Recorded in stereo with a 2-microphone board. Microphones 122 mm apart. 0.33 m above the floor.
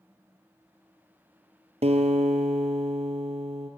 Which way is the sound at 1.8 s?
60° right (ahead or behind).